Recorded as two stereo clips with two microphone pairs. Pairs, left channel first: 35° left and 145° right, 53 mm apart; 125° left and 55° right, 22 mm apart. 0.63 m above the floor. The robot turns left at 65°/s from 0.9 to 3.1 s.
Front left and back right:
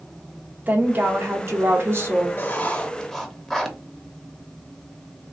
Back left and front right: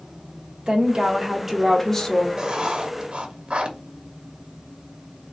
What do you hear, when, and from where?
0.7 s a woman speaking: 95° right, 1.3 m; by 2.3 s 175° left, 1.3 m
2.4 s writing: straight ahead, 0.9 m; by 3.8 s 50° right, 0.9 m